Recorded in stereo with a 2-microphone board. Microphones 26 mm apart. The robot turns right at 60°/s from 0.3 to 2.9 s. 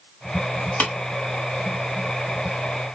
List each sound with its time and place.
0.8 s tapping: 60° left (ahead or behind), 0.8 m